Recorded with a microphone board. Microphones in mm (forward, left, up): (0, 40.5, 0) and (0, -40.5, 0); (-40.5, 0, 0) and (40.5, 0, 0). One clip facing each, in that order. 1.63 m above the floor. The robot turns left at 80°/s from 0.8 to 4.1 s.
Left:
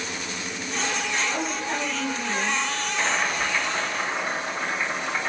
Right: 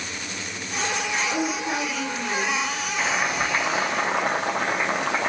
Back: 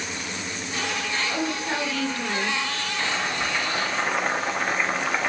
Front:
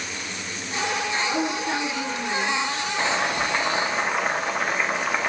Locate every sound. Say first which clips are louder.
1.3 s a woman speaking: right 2 dB, front 2 dB; 70° right, 1.5 m; by 2.6 s 175° right, 1.5 m
3.0 s boiling: right 1 dB, front 4 dB; 5° left, 0.7 m; by 5.3 s 85° right, 0.7 m